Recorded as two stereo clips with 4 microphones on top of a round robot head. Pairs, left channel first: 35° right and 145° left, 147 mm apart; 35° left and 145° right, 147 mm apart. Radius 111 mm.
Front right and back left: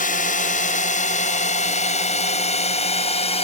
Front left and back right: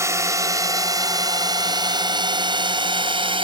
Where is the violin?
I don't hear a violin.